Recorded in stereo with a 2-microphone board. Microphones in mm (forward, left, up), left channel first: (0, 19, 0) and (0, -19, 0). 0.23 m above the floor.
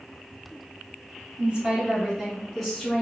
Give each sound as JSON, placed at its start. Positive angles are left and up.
{"t": 1.4, "sound": "a woman speaking", "side_deg": -30, "distance_m": 1.2}